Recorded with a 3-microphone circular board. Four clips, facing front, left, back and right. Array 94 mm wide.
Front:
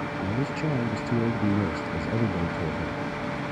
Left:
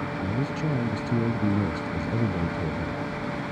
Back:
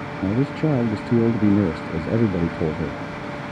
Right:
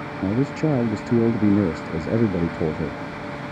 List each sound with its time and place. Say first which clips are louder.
0.2 s a man speaking: right 10 dB, back 9 dB; 130° right